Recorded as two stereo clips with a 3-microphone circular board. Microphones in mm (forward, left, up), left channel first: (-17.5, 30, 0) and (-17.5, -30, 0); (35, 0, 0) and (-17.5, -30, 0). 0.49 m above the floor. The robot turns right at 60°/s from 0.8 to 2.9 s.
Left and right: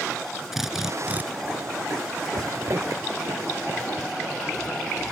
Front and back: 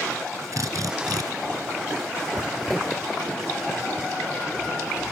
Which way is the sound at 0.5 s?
175° right.